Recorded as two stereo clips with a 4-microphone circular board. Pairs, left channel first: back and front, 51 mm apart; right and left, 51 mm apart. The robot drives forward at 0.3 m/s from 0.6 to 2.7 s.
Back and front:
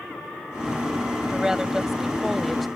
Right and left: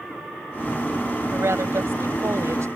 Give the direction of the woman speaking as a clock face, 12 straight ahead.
9 o'clock.